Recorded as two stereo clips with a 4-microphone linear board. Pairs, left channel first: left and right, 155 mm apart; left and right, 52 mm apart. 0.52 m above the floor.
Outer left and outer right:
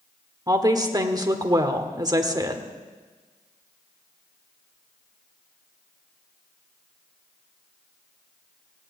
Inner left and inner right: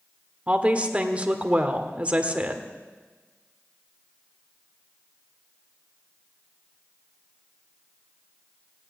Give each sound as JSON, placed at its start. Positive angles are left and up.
{"t": 0.5, "sound": "a woman speaking", "side_deg": -25, "distance_m": 1.4}